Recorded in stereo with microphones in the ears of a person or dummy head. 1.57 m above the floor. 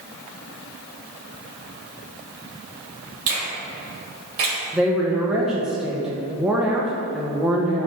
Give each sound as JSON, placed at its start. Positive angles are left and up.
{"t": 3.3, "sound": "a finger snap", "side_deg": -55, "distance_m": 2.0}
{"t": 4.7, "sound": "a woman speaking", "side_deg": -5, "distance_m": 1.0}